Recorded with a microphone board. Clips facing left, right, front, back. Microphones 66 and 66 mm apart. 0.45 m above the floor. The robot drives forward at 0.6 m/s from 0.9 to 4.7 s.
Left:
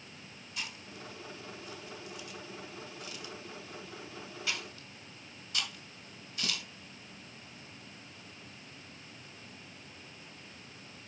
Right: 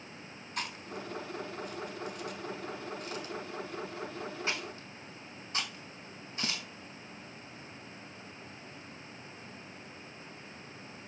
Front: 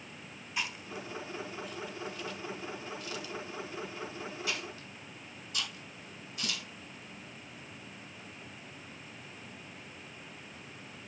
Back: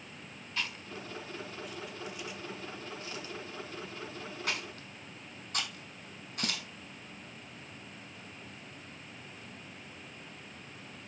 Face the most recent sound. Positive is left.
turn(degrees=-145)